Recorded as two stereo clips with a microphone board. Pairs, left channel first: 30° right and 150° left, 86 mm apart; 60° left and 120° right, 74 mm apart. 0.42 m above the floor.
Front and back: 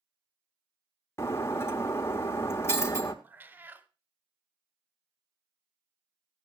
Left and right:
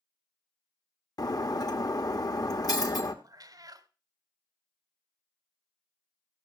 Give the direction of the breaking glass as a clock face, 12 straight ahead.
11 o'clock.